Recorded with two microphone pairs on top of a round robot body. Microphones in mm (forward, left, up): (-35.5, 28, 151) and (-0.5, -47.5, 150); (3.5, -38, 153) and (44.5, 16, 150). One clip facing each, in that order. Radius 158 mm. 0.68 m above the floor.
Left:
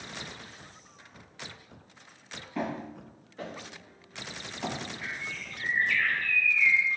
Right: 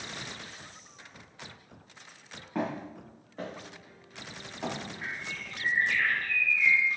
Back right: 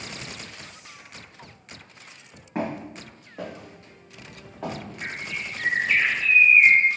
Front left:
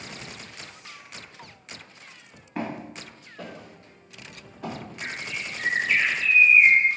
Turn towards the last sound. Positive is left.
turn(degrees=-45)